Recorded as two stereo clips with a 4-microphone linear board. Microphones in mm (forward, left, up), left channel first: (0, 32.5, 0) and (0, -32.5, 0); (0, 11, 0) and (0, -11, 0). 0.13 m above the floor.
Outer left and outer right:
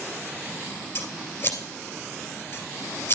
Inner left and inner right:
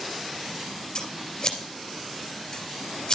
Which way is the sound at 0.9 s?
35° left (ahead or behind).